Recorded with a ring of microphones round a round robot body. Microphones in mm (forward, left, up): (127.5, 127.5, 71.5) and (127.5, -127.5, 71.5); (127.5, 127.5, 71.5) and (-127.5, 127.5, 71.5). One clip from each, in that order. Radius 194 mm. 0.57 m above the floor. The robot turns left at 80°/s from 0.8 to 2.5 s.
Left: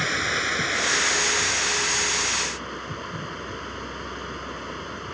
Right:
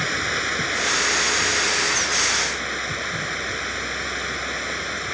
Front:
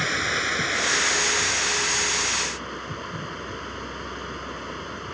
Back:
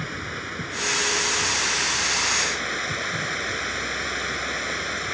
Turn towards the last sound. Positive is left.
turn(degrees=-135)